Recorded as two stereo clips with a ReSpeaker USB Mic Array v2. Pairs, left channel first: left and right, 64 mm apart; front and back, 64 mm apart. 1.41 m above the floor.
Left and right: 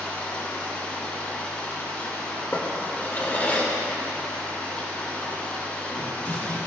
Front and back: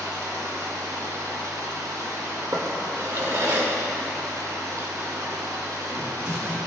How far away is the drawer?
About 1.9 m.